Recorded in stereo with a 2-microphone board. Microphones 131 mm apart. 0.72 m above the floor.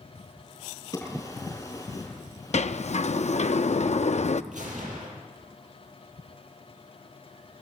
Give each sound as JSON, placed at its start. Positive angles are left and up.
{"t": 0.9, "sound": "a drawer", "side_deg": 25, "distance_m": 5.5}
{"t": 2.5, "sound": "a sliding door", "side_deg": 60, "distance_m": 0.6}
{"t": 4.5, "sound": "a gunshot", "side_deg": -70, "distance_m": 5.5}